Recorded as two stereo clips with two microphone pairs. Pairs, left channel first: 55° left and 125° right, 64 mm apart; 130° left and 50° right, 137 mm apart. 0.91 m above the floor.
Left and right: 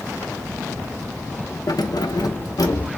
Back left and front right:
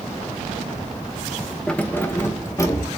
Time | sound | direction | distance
1.7 | keys jangling | 45° left | 0.8 m